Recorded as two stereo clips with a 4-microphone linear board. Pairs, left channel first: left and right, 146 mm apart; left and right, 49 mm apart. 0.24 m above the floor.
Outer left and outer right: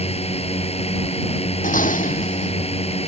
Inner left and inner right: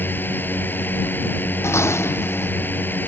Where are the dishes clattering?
65° left (ahead or behind).